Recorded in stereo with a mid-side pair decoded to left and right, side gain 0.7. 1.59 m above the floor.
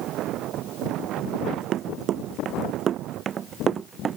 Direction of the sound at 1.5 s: 50° right.